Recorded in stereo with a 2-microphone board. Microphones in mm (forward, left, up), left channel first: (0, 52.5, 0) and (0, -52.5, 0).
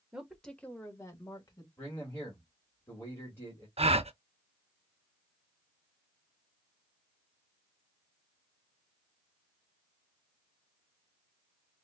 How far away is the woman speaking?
About 1.2 m.